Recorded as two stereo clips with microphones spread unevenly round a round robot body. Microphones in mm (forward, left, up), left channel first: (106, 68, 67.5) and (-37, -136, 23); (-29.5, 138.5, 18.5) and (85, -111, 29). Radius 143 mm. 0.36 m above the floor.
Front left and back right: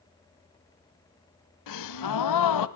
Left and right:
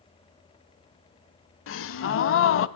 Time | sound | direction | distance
1.7 | a gasp | 70° left | 0.6 m